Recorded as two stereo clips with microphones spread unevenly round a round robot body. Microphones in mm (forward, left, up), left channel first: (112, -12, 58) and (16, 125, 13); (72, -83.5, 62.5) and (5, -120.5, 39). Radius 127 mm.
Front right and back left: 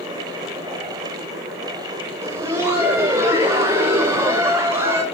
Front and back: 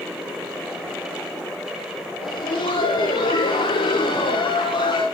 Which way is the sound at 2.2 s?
55° left.